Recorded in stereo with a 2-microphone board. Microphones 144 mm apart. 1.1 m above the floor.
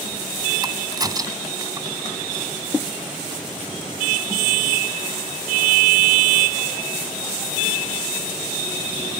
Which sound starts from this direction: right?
A crack, at 0.6 s.